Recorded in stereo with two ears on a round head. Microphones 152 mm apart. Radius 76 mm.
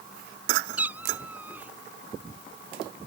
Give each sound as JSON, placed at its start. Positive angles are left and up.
{"t": 0.8, "sound": "a cat meowing", "side_deg": -10}